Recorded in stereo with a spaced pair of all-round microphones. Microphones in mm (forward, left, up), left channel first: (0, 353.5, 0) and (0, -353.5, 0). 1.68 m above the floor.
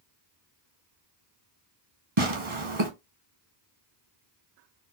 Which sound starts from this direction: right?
Tearing paper, at 2.2 s.